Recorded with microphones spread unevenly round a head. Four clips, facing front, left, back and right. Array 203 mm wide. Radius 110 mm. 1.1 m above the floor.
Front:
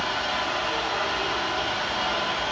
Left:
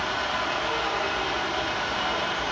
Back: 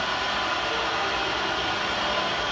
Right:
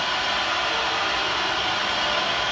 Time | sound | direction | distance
0.0 | an engine running | 110° left | 3.5 m